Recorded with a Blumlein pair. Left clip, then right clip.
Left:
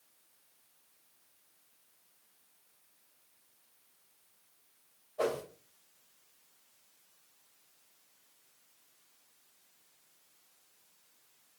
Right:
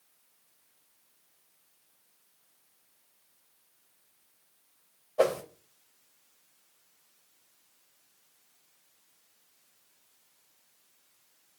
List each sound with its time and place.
5.2 s a whoosh: 35° right, 0.6 m